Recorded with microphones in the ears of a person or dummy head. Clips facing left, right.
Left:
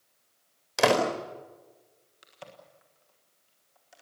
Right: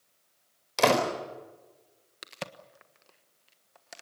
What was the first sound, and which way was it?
A door slam, 5° left (ahead or behind).